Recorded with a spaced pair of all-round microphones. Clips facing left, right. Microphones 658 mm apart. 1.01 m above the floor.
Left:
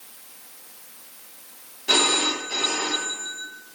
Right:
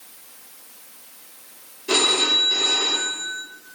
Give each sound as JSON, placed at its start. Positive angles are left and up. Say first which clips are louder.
{"t": 1.9, "sound": "a phone ringing", "louder": "right 2 dB", "side_deg": 20, "distance_m": 0.6}